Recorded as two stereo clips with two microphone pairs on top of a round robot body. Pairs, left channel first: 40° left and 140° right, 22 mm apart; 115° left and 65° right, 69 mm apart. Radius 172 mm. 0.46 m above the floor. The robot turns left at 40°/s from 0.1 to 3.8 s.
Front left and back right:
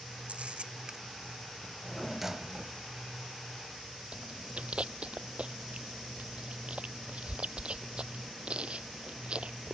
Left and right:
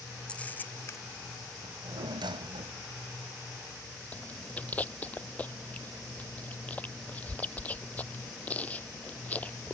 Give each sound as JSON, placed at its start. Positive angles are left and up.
{"t": 0.3, "sound": "a camera shutter", "azimuth_deg": -170}
{"t": 1.6, "sound": "a drawer", "azimuth_deg": -35}
{"t": 4.1, "sound": "chewing", "azimuth_deg": -175}